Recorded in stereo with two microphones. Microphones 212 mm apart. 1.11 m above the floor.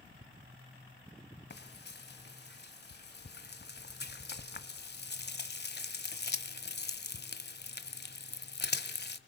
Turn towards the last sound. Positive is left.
turn(degrees=55)  # may be behind; listen again after turning